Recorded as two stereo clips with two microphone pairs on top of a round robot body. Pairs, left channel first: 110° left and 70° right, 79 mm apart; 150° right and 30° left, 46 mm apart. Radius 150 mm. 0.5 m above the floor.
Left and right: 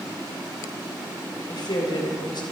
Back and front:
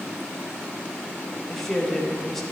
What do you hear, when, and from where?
1.5 s a woman speaking: 130° left, 3 m